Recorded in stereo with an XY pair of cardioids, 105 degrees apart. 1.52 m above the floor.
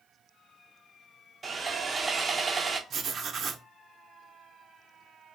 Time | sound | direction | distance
1.4 | sawing | 30° right | 0.5 m
2.9 | writing | 50° right | 0.5 m